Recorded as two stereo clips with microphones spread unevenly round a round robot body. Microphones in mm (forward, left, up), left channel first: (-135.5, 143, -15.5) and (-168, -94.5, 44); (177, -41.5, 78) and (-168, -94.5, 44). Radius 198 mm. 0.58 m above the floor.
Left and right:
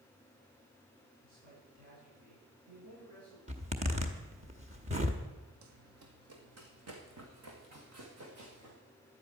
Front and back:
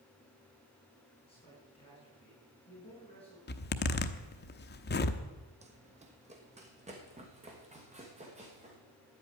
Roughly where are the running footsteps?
Right.